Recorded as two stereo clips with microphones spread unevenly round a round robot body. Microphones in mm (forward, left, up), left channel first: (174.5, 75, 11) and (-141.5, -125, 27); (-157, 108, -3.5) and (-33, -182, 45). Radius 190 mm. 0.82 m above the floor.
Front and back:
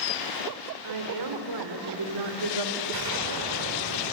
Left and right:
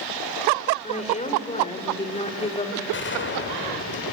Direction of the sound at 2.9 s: 165° left.